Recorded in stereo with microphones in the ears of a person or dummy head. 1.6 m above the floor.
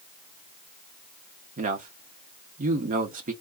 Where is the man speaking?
50° right (ahead or behind), 0.6 m.